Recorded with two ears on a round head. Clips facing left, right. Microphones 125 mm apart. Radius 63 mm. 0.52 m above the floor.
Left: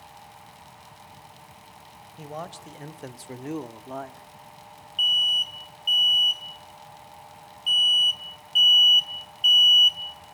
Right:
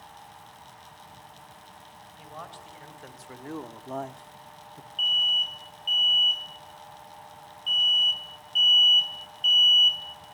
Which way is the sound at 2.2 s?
50° left (ahead or behind).